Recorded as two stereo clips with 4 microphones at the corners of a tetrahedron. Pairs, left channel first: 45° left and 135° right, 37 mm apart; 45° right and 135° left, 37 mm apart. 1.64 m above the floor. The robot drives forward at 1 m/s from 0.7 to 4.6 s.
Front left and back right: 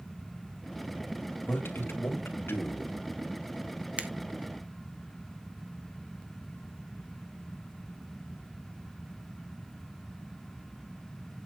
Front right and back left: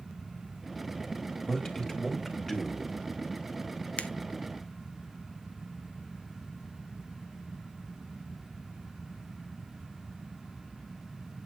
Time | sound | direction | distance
1.5 | a man speaking | 25° left | 3 m
4.0 | a finger snap | 85° right | 1.0 m